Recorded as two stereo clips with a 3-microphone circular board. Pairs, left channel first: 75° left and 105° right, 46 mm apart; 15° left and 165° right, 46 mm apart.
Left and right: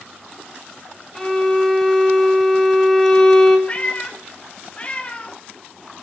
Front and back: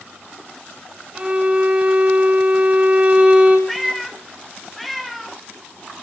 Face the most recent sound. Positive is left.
turn(degrees=105)